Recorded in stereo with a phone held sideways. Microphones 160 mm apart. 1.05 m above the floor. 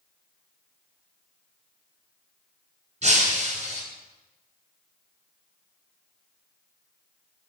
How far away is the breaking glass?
About 3 m.